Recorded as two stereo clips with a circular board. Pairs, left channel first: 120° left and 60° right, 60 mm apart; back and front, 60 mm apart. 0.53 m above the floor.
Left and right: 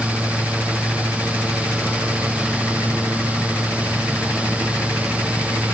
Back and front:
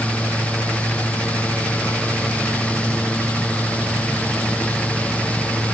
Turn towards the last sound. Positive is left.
No sound to turn to.